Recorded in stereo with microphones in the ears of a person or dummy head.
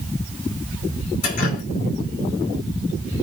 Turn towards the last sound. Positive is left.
turn(degrees=45)  # may be behind; listen again after turning